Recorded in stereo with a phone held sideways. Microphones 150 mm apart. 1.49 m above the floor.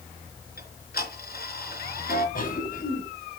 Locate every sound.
0.6 s ticking: 75° left (ahead or behind), 4.5 m
2.4 s a cough: 65° left (ahead or behind), 9 m